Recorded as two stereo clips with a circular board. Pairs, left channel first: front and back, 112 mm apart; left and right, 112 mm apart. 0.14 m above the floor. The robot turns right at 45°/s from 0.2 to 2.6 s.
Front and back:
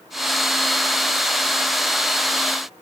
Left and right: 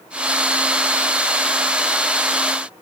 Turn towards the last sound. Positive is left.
No sound to turn to.